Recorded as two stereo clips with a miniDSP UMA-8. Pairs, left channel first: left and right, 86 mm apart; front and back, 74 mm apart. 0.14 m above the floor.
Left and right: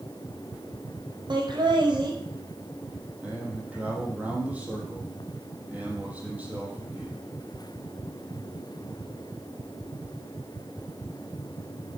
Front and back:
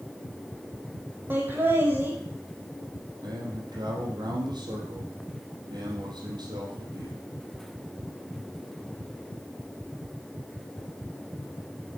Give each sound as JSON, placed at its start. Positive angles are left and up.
{"t": 1.3, "sound": "laughter", "azimuth_deg": -115, "distance_m": 4.0}
{"t": 3.2, "sound": "a man speaking", "azimuth_deg": -165, "distance_m": 5.0}